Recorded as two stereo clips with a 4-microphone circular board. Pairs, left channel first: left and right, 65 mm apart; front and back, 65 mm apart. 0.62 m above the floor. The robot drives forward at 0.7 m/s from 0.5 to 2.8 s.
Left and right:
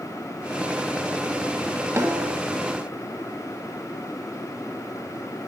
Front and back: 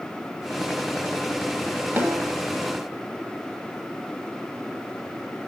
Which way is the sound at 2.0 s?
130° right.